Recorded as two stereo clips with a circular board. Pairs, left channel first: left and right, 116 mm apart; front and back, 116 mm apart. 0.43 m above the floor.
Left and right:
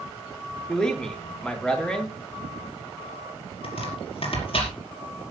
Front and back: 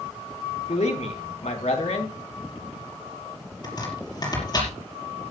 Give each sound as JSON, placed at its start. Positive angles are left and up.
{"t": 0.7, "sound": "a man speaking", "azimuth_deg": 5, "distance_m": 3.5}
{"t": 3.6, "sound": "chopping", "azimuth_deg": 55, "distance_m": 5.0}